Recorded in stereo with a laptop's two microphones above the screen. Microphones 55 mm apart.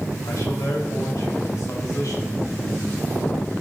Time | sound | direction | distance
0.3 | a man speaking | 85° left | 4.5 m